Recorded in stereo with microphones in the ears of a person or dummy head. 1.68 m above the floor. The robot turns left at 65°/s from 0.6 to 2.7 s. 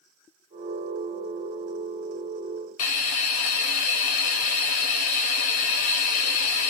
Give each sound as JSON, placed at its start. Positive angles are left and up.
{"t": 2.8, "sound": "a hiss", "side_deg": 35, "distance_m": 0.6}